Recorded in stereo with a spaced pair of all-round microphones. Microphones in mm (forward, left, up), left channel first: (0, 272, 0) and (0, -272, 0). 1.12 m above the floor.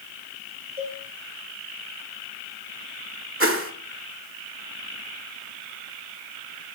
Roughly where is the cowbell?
Left.